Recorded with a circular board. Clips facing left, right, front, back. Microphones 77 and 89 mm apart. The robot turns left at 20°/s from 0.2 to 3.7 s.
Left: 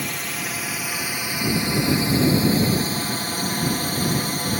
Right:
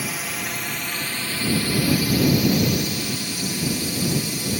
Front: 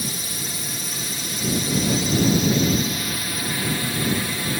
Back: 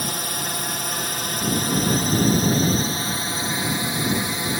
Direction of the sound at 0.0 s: 175° right.